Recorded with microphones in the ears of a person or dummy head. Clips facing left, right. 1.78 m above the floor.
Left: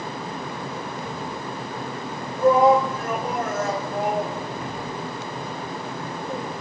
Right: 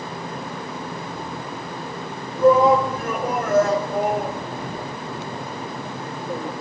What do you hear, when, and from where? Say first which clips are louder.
2.4 s a shout: right 2 dB; 70° right (ahead or behind), 3 m; by 6.5 s 30° right (ahead or behind), 3.5 m